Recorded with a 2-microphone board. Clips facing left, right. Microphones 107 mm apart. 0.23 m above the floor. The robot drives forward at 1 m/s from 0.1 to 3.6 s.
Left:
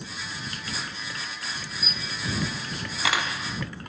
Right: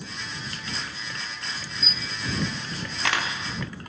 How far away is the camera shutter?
About 2.0 m.